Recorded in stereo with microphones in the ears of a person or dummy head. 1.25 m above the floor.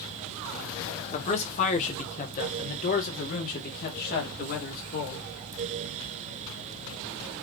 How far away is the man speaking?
About 2.0 m.